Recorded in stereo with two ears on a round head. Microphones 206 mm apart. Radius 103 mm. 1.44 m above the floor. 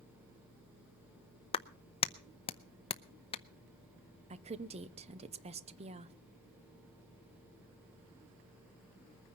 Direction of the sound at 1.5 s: 25° left (ahead or behind).